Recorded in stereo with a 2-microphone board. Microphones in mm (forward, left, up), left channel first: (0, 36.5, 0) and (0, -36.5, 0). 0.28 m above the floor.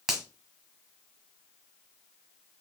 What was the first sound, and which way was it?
A finger snap, 5° right (ahead or behind).